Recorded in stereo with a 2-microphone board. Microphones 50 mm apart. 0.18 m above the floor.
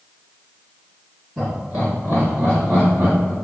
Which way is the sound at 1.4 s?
25° right (ahead or behind).